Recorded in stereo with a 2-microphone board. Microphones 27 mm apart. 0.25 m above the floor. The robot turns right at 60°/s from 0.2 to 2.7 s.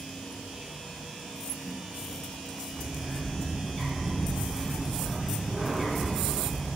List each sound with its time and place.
2.7 s a bird: 15° right (ahead or behind), 1.3 m